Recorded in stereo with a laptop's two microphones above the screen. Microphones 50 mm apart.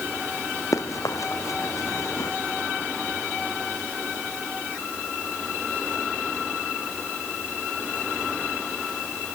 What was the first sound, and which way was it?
Running footsteps, 85° left.